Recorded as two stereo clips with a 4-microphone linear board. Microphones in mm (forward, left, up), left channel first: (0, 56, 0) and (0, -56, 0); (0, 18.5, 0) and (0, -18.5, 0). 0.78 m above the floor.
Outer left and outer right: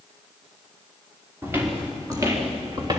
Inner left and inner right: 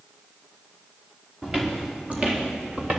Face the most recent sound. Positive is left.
turn(degrees=-35)  # may be behind; listen again after turning